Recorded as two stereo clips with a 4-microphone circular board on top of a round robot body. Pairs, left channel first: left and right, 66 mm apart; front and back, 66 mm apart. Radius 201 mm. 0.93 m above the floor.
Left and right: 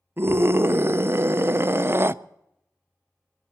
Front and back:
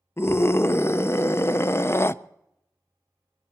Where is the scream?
45° right, 0.7 m.